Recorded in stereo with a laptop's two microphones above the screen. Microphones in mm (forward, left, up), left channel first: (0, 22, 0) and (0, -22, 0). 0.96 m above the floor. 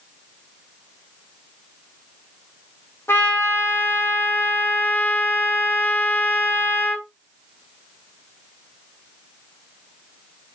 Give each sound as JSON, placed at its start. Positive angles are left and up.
{"t": 3.1, "sound": "a trumpet", "side_deg": 65, "distance_m": 1.5}